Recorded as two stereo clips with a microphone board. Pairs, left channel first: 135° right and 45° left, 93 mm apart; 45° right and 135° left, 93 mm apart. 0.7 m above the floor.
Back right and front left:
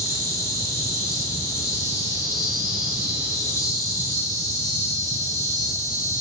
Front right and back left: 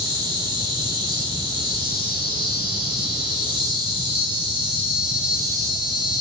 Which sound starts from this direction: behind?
An insect, at 0.0 s.